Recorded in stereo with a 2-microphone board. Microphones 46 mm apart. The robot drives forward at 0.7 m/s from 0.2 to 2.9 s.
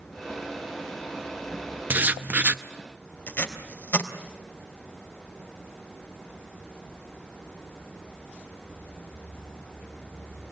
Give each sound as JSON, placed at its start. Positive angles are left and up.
{"t": 1.9, "sound": "writing", "side_deg": -45, "distance_m": 0.8}
{"t": 3.3, "sound": "tape being pulled", "side_deg": 40, "distance_m": 3.5}